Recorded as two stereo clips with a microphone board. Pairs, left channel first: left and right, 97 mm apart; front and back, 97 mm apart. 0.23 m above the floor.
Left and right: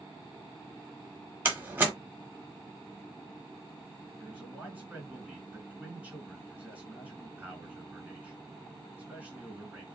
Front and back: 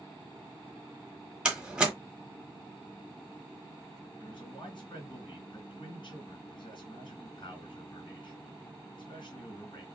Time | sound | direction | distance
1.4 | a door slam | 115° right | 1.1 m
4.2 | a man speaking | 20° right | 2.5 m